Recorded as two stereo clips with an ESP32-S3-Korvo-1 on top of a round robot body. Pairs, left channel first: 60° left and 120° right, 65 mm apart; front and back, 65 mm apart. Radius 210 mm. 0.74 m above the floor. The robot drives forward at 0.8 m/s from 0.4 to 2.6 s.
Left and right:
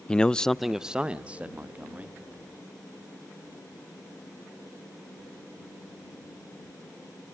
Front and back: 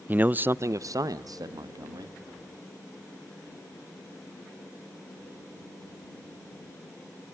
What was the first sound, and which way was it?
A man speaking, 135° left.